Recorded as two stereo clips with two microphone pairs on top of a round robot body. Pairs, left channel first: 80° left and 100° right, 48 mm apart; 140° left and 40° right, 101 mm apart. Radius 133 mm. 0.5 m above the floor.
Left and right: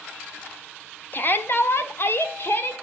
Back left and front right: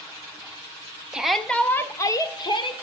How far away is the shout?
About 1.6 m.